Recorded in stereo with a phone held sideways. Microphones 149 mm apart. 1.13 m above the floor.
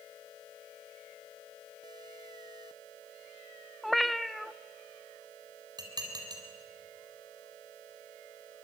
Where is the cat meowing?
Centre (ahead or behind), 0.6 m.